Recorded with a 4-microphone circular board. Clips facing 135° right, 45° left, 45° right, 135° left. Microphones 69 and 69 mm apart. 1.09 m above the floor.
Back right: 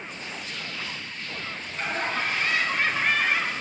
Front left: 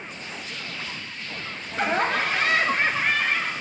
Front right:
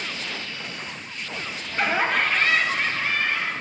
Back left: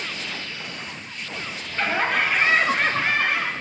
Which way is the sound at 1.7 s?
30° left.